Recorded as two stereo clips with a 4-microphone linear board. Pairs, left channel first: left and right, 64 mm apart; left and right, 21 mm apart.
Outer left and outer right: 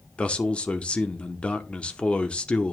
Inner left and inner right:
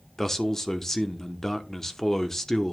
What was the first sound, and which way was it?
A man speaking, 20° left (ahead or behind).